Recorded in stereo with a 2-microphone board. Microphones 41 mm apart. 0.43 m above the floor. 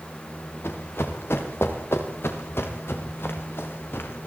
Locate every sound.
0.6 s running footsteps: 85° left, 8 m; by 4.3 s 65° left (ahead or behind), 8 m